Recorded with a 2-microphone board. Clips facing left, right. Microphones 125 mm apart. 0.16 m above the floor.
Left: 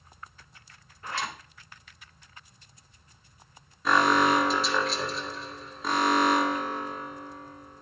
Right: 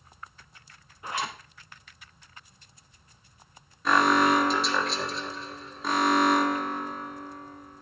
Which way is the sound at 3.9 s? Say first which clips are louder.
Right 1 dB; centre (ahead or behind).